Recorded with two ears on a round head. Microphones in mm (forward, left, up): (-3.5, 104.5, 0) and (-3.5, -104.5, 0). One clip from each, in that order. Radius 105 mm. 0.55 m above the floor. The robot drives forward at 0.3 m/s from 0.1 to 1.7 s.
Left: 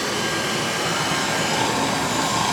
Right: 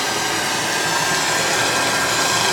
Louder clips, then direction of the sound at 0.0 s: Right 3 dB; 45° right (ahead or behind).